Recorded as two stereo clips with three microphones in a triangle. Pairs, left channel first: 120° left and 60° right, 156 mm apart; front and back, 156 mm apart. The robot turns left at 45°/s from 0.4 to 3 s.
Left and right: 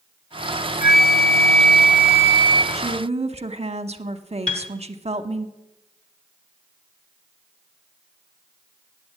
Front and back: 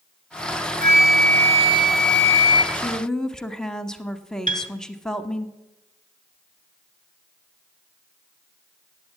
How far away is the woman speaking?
About 0.8 m.